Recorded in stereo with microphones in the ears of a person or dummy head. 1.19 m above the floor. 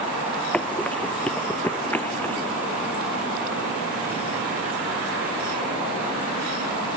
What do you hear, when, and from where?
0.5 s running footsteps: 5° left (ahead or behind); by 2.5 s 10° left (ahead or behind)